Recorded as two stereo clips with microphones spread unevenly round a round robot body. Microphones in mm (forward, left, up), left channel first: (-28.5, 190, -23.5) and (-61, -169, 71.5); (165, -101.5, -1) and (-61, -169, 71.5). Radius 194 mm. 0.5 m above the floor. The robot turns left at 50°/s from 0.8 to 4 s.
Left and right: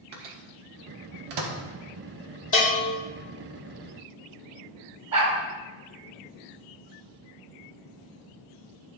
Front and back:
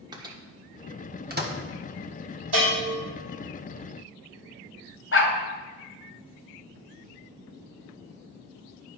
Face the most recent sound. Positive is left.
turn(degrees=-20)